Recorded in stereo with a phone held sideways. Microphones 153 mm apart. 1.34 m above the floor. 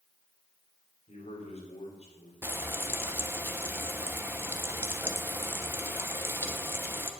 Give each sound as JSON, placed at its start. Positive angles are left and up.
{"t": 1.1, "sound": "a man speaking", "side_deg": 45, "distance_m": 4.0}
{"t": 2.4, "sound": "frying", "side_deg": -15, "distance_m": 0.9}